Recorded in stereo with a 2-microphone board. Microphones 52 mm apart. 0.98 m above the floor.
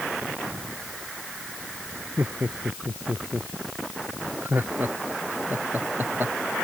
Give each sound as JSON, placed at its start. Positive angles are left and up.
{"t": 2.2, "sound": "laughter", "side_deg": -40}